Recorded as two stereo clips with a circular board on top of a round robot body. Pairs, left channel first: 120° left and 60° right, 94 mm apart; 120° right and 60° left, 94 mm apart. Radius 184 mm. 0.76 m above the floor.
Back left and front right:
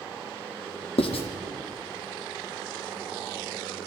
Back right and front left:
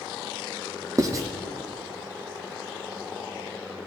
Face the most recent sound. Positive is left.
turn(degrees=115)